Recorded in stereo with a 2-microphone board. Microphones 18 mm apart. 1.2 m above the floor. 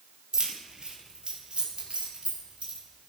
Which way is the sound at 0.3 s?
35° right (ahead or behind).